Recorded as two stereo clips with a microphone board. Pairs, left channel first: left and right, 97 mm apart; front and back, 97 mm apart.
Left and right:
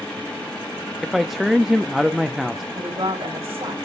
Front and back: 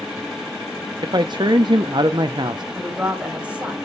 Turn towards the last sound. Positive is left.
turn(degrees=-100)